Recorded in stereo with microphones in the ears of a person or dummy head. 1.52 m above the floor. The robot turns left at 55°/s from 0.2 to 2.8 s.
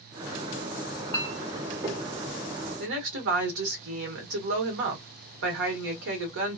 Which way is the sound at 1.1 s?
20° left (ahead or behind).